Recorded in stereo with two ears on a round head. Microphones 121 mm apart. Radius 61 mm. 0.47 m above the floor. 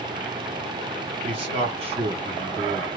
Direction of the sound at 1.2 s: 40° right (ahead or behind).